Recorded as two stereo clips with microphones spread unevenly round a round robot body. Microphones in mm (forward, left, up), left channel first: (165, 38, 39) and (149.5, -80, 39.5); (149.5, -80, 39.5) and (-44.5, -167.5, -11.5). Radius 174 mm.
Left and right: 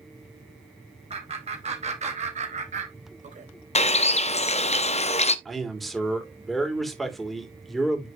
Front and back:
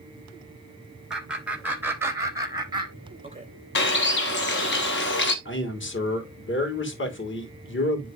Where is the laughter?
70° right, 4 m; by 3.5 s 100° right, 3 m.